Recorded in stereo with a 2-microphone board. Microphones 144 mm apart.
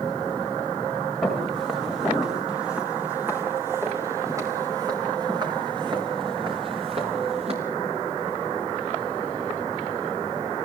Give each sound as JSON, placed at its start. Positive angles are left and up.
{"t": 1.2, "sound": "footsteps", "side_deg": 0, "distance_m": 7.5}